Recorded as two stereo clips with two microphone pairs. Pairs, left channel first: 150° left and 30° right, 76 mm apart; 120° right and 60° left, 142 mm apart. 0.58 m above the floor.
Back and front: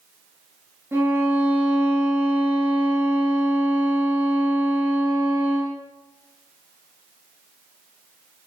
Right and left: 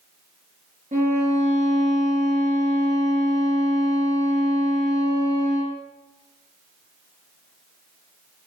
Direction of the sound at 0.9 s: 35° left.